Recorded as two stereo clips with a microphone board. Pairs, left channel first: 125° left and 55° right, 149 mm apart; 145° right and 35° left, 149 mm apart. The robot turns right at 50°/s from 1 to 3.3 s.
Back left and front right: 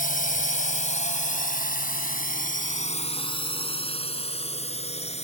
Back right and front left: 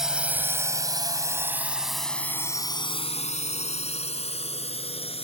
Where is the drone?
120° left; by 5.2 s 165° left.